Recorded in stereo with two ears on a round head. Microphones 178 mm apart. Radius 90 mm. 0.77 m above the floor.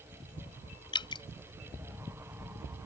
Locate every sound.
0.9 s dripping: 25° left (ahead or behind)